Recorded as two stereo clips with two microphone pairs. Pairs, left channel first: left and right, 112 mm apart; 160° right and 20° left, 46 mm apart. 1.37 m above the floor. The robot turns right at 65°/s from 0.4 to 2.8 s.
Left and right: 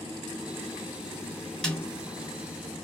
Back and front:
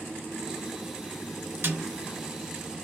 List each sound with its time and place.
1.6 s a snare drum: 10° left, 2 m; by 1.9 s 20° left, 2 m